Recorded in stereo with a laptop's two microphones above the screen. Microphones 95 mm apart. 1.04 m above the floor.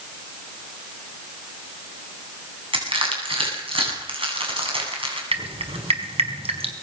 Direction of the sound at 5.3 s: 75° right (ahead or behind).